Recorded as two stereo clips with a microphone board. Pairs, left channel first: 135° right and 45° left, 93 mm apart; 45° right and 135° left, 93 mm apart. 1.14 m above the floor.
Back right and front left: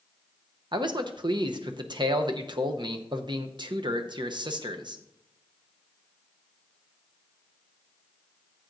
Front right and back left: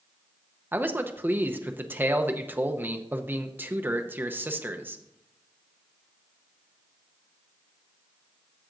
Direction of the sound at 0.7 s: 70° left.